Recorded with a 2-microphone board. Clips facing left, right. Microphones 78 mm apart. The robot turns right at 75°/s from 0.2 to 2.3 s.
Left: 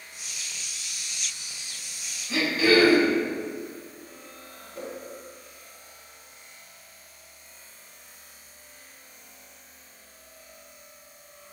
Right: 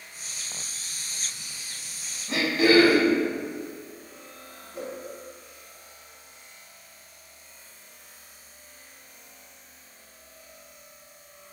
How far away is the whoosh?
About 1.1 m.